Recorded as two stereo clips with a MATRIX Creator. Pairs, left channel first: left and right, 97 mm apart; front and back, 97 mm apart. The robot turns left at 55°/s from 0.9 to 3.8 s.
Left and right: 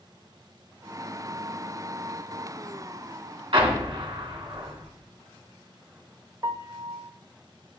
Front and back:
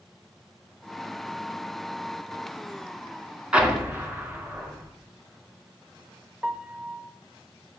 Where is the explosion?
100° right, 2.5 m; by 4.9 s 115° right, 2.5 m.